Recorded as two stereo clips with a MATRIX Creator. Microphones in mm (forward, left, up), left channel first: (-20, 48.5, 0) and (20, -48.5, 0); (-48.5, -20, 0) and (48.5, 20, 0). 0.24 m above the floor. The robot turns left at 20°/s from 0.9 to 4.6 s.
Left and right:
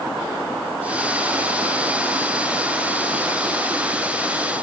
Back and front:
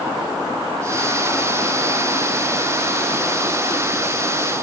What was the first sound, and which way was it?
Only background noise.